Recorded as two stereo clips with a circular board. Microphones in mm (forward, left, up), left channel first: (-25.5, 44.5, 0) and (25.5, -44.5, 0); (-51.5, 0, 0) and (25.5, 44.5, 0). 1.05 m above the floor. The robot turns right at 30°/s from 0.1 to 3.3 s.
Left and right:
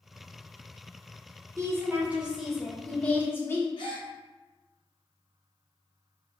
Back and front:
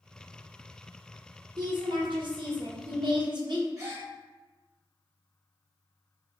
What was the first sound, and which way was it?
A woman speaking, straight ahead.